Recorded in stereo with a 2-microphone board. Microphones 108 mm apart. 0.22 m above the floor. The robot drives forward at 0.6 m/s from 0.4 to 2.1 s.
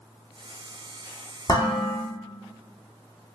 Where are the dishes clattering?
35° left (ahead or behind), 1.1 m; by 1.9 s 30° left (ahead or behind), 1.3 m.